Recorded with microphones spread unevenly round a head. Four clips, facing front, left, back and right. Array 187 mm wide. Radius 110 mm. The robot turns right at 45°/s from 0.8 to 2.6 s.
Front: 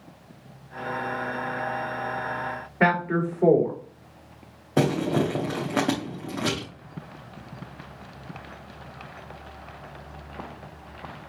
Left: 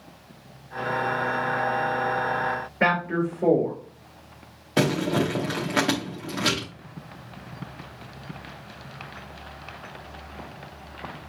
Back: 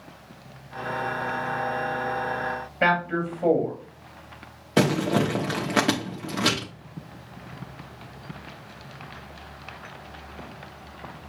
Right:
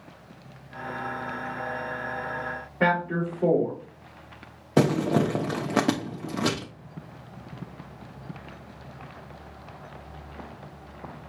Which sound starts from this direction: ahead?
A man speaking, at 2.8 s.